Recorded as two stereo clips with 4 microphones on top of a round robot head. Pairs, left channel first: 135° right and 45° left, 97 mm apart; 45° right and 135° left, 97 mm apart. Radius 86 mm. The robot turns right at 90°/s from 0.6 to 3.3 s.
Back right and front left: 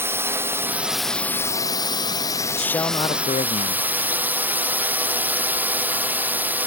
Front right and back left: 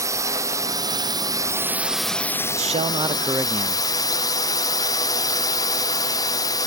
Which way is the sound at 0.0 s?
100° left.